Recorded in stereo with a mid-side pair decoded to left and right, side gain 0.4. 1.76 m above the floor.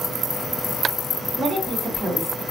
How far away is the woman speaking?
About 2 m.